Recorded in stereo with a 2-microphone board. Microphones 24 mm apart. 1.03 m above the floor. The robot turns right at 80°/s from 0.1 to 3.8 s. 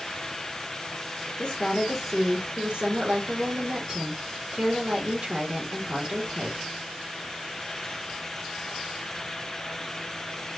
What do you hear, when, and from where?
1.4 s a woman speaking: 125° left, 1.6 m; by 6.7 s 40° right, 1.6 m